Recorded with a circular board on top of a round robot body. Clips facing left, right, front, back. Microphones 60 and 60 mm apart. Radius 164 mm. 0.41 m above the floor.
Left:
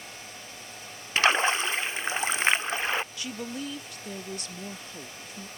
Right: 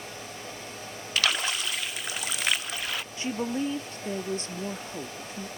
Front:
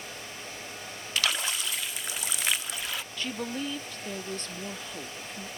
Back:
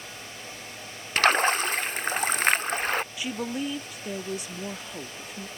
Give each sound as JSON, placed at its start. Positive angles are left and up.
{"t": 1.2, "sound": "a splash", "azimuth_deg": 145}
{"t": 3.2, "sound": "a woman speaking", "azimuth_deg": -110}